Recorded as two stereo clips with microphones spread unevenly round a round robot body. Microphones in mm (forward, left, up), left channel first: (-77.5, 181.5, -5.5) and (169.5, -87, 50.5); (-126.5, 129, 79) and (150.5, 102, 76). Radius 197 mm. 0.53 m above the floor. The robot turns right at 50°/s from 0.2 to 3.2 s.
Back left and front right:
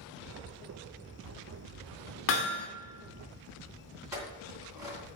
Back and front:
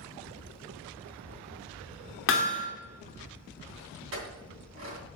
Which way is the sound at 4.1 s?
35° left.